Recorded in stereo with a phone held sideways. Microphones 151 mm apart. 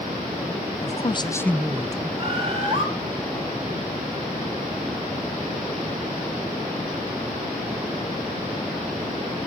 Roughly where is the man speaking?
Left.